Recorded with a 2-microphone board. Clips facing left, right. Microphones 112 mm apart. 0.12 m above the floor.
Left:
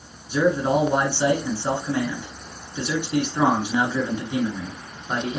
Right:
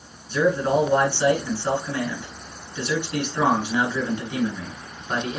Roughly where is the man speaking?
Centre.